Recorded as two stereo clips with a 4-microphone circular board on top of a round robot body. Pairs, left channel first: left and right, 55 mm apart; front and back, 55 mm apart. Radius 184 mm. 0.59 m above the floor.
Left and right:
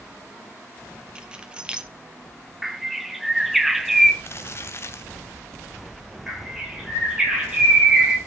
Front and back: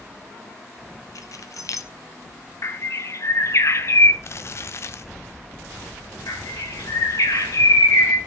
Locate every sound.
1.1 s keys jangling: 20° right, 1.5 m
2.6 s a bird: 5° right, 1.5 m
4.2 s crumpling: 45° left, 0.6 m
6.3 s a bird: 15° right, 7.5 m